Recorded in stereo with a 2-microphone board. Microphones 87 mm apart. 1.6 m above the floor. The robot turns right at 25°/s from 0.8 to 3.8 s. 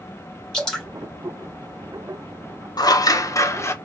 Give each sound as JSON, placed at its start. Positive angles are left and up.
{"t": 0.5, "sound": "dripping", "side_deg": 10, "distance_m": 2.0}
{"t": 2.8, "sound": "scissors", "side_deg": 50, "distance_m": 0.6}